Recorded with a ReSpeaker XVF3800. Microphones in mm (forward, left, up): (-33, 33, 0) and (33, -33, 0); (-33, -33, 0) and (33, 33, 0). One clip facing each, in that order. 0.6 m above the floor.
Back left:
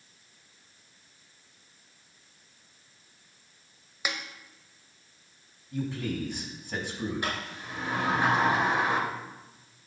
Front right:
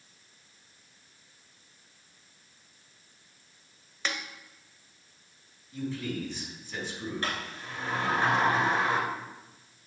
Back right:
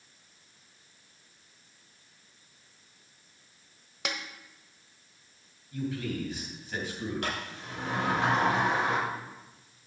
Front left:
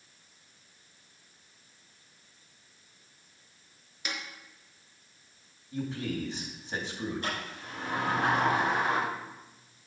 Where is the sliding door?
150° right, 3.5 m.